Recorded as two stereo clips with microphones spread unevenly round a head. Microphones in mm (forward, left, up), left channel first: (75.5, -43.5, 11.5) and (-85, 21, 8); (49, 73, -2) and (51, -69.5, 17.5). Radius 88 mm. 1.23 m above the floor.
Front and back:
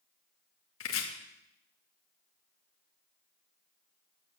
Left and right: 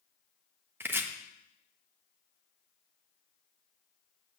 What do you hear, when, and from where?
0.8 s chopping: 15° right, 1.7 m